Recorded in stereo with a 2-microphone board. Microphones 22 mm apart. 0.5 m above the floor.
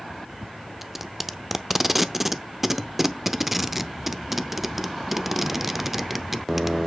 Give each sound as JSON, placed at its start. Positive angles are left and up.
{"t": 0.8, "sound": "tape being pulled", "side_deg": -5, "distance_m": 0.7}